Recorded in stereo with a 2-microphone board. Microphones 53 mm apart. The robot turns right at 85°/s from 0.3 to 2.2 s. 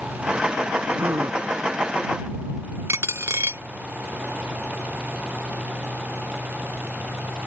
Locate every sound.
1.0 s a gasp: 145° right; by 1.4 s 105° right
2.9 s a dropped coin: 60° right (ahead or behind)